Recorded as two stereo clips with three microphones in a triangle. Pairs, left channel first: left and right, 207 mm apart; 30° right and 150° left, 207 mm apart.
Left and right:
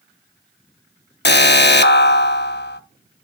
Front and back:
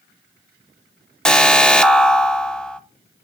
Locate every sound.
1.2 s an alarm: 55° left, 0.6 m